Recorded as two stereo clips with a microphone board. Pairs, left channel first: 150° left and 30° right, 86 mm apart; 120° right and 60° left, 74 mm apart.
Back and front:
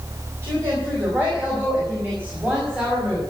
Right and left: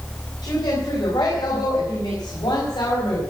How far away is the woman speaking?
About 4.5 m.